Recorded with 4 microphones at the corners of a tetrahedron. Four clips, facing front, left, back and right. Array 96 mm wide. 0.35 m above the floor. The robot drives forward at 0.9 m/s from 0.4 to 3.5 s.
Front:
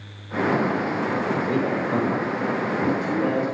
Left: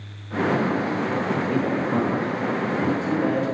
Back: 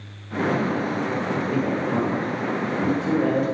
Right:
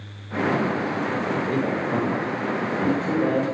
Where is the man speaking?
35° right, 1.5 m; by 3.5 s 160° right, 1.9 m.